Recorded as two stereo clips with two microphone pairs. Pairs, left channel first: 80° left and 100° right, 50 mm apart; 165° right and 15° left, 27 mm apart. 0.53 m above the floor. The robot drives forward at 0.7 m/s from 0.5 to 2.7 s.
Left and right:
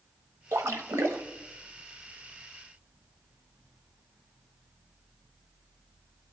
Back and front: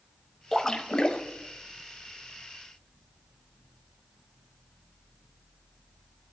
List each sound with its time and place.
0.5 s a splash: 85° right, 0.9 m; by 1.2 s 115° right, 1.0 m